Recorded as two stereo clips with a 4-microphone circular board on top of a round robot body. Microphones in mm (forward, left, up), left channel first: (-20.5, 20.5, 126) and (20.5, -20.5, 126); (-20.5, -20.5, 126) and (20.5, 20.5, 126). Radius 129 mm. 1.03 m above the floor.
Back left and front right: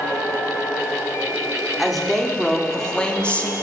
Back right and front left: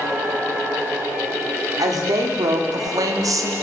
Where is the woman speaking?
45° left, 3 m; by 3.5 s 70° left, 1.6 m.